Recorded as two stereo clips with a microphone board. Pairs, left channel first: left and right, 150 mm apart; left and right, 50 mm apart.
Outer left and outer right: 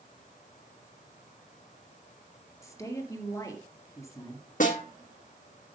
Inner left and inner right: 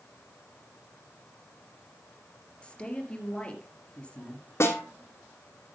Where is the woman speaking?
20° left (ahead or behind), 3 m.